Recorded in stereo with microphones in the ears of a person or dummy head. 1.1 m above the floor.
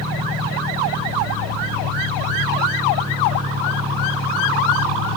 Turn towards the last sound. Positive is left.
turn(degrees=-75)  # may be behind; listen again after turning